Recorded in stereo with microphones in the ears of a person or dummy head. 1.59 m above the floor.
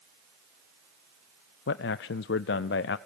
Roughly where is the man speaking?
Left.